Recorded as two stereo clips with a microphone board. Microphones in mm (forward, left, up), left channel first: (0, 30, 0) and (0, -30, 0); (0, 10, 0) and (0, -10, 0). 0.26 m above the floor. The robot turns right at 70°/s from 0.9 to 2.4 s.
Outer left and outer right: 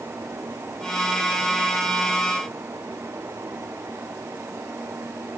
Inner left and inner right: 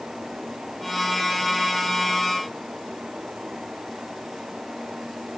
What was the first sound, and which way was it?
Only background noise.